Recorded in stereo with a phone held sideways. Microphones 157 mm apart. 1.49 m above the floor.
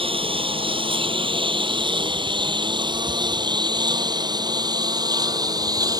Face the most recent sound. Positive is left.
turn(degrees=-25)  # may be behind; listen again after turning